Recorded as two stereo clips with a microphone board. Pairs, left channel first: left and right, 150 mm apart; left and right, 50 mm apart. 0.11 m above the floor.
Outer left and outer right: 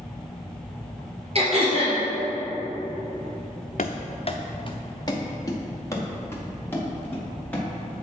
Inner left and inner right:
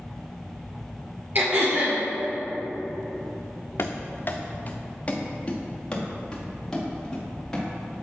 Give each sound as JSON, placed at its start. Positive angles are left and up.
{"t": 1.4, "sound": "throat clearing", "side_deg": -45, "distance_m": 2.0}
{"t": 3.8, "sound": "running footsteps", "side_deg": 65, "distance_m": 0.6}